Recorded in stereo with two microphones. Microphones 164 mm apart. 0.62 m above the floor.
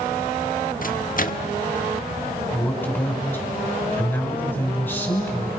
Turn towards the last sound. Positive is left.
turn(degrees=10)  # may be behind; listen again after turning